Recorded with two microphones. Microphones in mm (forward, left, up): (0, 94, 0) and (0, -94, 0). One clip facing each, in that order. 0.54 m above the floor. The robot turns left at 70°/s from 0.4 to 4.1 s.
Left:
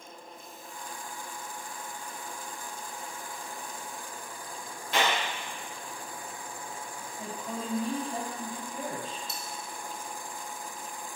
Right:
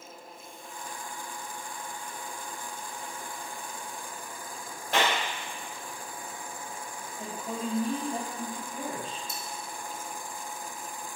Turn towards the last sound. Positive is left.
turn(degrees=70)  # may be behind; listen again after turning